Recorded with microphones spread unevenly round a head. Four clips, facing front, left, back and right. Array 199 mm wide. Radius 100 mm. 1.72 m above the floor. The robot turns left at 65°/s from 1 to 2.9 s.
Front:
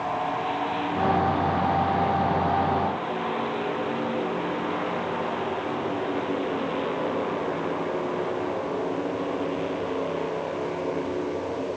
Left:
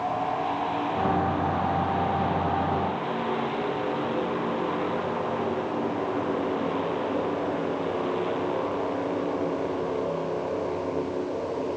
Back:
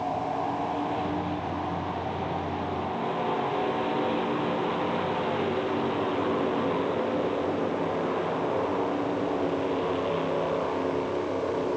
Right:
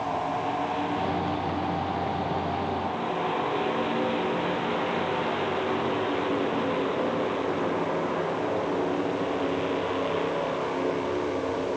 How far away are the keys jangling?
I don't hear keys jangling.